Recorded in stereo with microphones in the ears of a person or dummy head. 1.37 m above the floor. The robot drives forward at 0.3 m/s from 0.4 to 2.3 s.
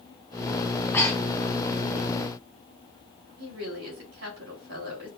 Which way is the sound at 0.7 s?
15° left (ahead or behind).